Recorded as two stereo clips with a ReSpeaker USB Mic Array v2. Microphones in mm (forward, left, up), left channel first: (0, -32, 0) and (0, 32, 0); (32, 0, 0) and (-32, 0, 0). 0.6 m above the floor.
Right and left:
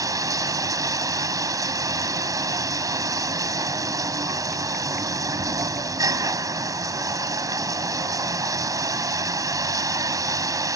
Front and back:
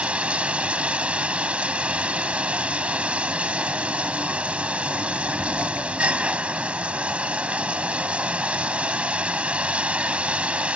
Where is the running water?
110° left.